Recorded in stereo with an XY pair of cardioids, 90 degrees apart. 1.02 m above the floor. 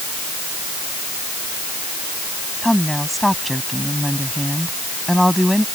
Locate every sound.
2.6 s a woman speaking: straight ahead